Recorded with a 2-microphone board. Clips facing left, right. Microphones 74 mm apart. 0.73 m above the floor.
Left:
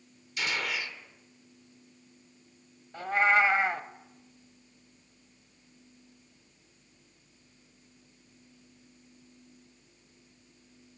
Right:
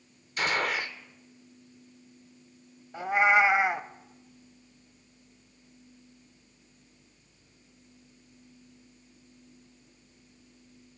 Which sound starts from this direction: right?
A gunshot, at 0.4 s.